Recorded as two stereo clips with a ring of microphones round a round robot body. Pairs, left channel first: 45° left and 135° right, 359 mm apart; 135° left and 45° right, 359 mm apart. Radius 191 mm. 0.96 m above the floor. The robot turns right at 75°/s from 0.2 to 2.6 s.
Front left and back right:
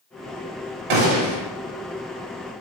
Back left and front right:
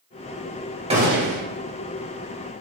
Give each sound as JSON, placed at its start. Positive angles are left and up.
{"t": 0.9, "sound": "a gunshot", "azimuth_deg": -120, "distance_m": 1.9}